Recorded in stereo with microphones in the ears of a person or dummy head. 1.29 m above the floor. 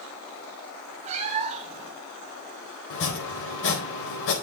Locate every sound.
1.1 s a cat meowing: 35° right (ahead or behind), 1.1 m
2.9 s chopping: 70° left (ahead or behind), 4 m